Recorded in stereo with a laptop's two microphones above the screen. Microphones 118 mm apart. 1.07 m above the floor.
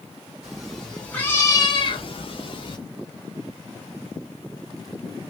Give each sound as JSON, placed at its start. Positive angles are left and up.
{"t": 0.4, "sound": "a cat meowing", "side_deg": 0, "distance_m": 1.3}